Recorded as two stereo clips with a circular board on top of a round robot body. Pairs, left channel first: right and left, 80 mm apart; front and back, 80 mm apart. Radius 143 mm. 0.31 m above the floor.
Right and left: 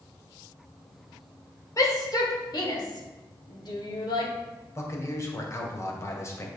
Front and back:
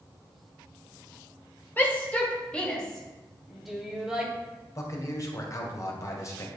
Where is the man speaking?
40° right, 2.5 m.